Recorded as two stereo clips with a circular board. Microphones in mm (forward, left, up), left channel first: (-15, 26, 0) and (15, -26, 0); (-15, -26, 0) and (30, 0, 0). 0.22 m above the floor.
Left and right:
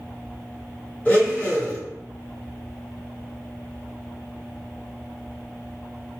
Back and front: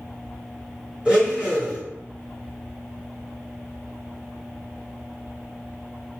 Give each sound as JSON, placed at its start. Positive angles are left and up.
{"t": 1.1, "sound": "a blender", "azimuth_deg": 85, "distance_m": 1.4}